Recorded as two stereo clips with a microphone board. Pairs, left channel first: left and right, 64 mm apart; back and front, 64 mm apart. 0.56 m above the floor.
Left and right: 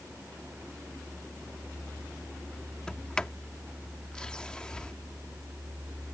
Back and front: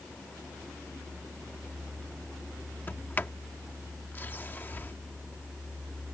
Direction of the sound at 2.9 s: 155° left.